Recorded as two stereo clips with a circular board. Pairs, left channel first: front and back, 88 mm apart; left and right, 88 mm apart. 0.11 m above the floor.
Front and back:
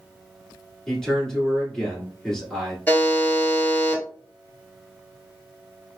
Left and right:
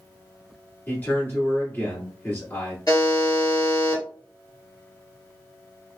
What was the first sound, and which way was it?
A man speaking, 75° left.